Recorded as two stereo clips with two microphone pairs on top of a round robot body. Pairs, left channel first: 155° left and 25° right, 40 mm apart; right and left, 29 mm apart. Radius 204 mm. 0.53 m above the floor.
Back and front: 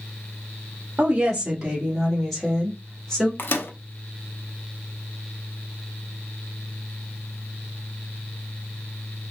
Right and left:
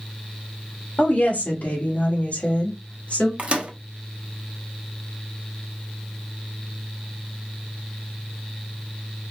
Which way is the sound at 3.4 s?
140° left.